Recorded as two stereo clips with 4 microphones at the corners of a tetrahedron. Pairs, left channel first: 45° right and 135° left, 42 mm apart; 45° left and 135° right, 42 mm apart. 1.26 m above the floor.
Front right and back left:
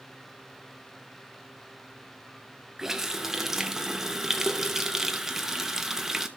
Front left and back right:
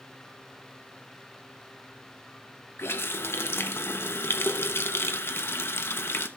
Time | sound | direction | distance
2.8 | a running tap | 55° left | 0.9 m